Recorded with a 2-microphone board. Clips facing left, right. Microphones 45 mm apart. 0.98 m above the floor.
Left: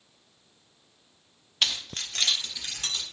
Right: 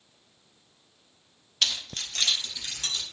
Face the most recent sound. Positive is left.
turn(degrees=25)  # may be behind; listen again after turning